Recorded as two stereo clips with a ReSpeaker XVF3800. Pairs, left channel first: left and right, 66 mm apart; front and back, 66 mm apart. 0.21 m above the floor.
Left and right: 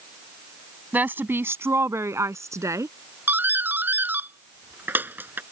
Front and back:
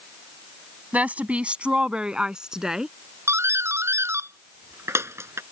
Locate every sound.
0.9 s a woman speaking: 130° right; by 3.0 s 100° right
3.3 s a doorbell: 145° right